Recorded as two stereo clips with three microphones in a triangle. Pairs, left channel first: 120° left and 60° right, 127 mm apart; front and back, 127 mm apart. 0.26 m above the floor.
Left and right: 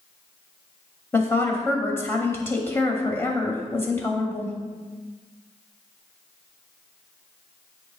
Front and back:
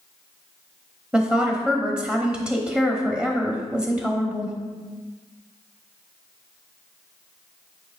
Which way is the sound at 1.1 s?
115° left.